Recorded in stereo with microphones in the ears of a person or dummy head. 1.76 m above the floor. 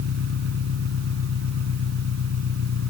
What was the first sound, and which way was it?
An engine running, 75° right (ahead or behind).